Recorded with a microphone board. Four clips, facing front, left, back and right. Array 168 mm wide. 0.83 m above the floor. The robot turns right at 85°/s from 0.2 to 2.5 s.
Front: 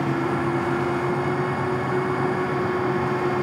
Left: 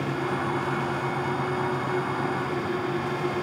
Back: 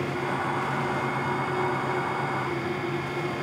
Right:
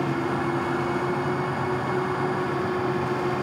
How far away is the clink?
No clink in this recording.